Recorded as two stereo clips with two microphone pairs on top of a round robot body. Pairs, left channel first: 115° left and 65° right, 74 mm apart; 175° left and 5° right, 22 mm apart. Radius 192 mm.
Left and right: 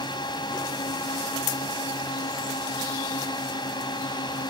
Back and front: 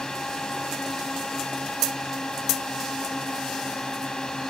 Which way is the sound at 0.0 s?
125° left.